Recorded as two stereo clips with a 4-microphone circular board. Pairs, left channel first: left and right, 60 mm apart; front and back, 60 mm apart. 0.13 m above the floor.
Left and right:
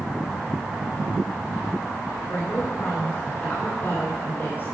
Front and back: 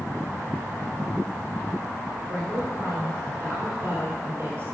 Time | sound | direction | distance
2.3 | a woman speaking | 140° left | 2 m